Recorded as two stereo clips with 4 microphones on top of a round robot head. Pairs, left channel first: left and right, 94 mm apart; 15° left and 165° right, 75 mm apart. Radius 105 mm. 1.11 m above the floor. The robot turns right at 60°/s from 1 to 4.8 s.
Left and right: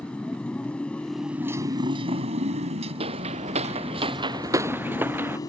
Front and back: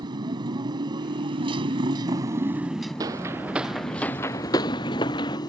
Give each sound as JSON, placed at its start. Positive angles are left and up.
{"t": 0.0, "sound": "a motorcycle", "azimuth_deg": 170}
{"t": 3.0, "sound": "footsteps", "azimuth_deg": -120}